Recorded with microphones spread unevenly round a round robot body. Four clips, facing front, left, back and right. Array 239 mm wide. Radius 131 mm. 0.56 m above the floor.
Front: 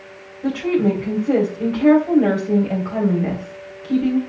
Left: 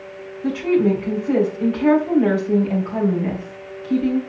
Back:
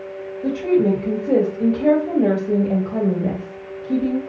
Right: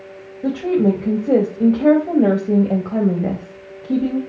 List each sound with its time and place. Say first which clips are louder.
0.4 s a woman speaking: right 1 dB, back 1 dB; 100° right, 3 m